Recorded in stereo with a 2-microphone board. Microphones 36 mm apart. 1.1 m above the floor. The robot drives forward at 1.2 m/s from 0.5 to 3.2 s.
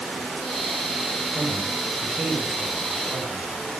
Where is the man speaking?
40° right (ahead or behind), 7 m; by 3.5 s 30° right (ahead or behind), 9 m.